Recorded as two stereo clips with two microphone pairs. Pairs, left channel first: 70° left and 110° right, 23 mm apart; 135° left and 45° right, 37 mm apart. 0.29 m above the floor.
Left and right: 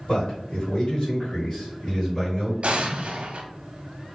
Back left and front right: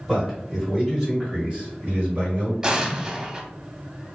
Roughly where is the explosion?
Right.